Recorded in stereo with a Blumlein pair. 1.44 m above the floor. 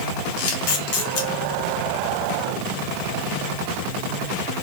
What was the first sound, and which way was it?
A camera shutter, 50° left.